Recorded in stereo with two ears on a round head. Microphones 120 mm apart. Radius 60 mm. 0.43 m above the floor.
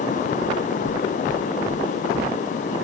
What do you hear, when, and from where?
0.4 s knocking: 5° right (ahead or behind), 1.2 m